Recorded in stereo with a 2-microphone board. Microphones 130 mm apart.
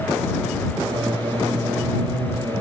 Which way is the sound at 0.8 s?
35° right (ahead or behind).